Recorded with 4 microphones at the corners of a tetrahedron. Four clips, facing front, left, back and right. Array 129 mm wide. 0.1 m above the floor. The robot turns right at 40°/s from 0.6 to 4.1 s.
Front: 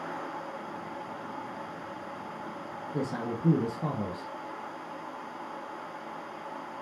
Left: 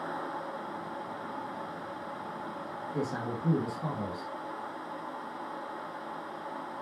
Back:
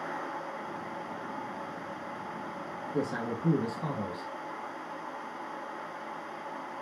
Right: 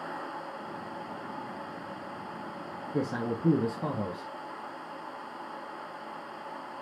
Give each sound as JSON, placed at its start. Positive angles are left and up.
{"t": 2.9, "sound": "a man speaking", "azimuth_deg": -100, "distance_m": 1.8}